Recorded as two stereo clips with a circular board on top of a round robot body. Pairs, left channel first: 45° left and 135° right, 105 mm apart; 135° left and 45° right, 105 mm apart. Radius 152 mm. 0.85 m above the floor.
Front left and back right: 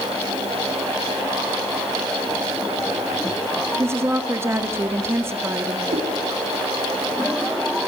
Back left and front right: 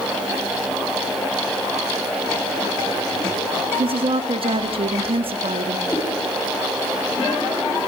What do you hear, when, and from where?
3.8 s a woman speaking: 70° right, 2.0 m
5.9 s a cat meowing: 155° right, 7.5 m